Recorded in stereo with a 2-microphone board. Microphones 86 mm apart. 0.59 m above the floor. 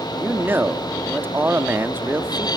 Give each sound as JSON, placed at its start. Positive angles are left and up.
{"t": 0.2, "sound": "a man speaking", "side_deg": -25, "distance_m": 1.0}